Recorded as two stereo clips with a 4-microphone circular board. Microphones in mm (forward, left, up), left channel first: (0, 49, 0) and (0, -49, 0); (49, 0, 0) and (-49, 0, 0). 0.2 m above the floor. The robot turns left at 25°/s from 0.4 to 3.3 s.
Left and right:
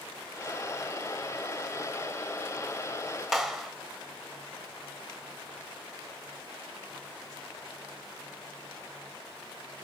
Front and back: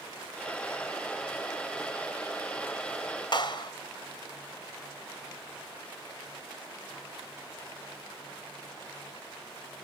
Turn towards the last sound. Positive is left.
turn(degrees=0)